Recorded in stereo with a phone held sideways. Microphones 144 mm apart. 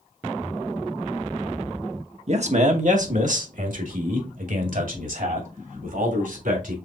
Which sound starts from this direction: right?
A man speaking, at 2.3 s.